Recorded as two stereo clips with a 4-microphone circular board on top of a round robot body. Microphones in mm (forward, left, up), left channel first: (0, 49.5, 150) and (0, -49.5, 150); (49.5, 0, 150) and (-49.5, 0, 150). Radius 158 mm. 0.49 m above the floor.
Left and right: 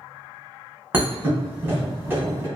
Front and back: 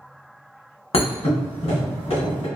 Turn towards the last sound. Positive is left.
turn(degrees=-20)